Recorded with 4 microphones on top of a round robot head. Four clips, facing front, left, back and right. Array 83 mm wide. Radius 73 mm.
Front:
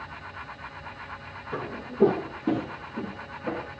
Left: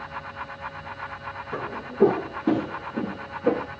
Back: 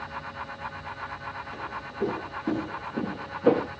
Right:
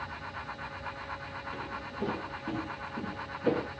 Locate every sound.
1.5 s footsteps: 55° left, 1.9 m; by 3.7 s 165° left, 1.4 m